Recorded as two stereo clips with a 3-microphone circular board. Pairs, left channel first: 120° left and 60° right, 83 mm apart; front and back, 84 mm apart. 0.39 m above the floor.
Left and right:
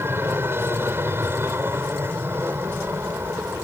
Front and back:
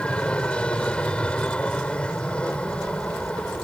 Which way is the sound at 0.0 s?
65° right.